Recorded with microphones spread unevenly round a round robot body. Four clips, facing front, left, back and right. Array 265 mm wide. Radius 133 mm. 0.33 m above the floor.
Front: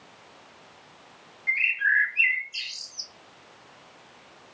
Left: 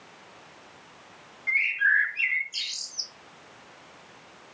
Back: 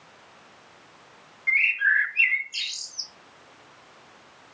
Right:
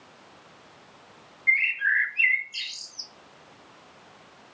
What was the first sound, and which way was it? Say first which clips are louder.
A bird: left 1 dB, back 2 dB; 155° left.